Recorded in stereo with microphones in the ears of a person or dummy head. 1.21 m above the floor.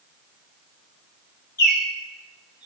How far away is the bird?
About 5 m.